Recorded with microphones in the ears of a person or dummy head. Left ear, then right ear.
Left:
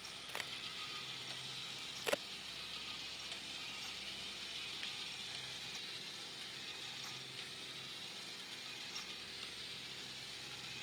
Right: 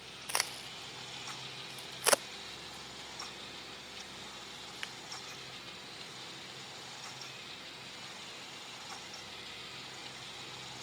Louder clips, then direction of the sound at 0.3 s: Right 9 dB; 40° right (ahead or behind).